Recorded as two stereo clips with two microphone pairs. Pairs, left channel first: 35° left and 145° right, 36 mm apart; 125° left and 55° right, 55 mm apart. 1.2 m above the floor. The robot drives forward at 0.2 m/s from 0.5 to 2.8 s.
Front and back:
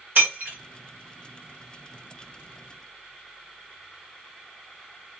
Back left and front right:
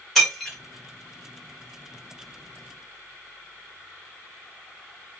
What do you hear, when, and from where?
0.1 s breaking glass: 150° right, 1.8 m